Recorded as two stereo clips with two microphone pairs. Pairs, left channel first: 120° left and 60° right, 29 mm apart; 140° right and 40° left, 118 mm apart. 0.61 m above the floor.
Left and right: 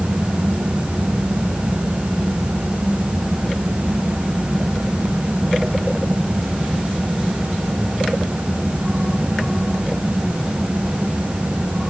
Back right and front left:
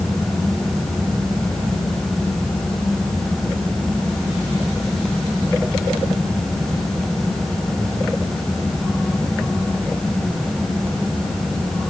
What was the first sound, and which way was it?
Only background noise.